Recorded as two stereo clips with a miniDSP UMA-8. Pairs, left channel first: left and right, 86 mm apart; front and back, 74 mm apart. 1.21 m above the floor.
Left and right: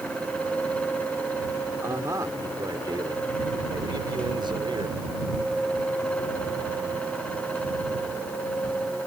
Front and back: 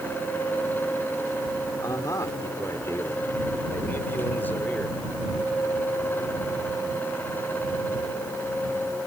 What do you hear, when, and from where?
1.8 s a man speaking: 40° right; by 5.0 s 70° right